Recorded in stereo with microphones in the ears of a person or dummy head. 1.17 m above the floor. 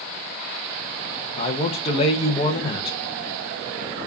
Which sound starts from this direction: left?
A man speaking, at 1.3 s.